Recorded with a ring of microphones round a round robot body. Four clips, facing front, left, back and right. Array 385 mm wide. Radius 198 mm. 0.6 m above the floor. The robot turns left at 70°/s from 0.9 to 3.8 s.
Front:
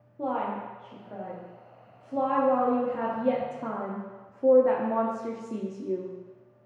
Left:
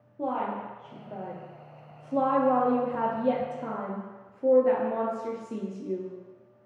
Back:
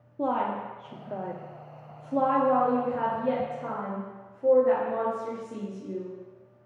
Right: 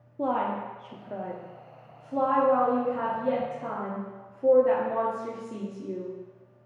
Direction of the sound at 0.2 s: 140° right.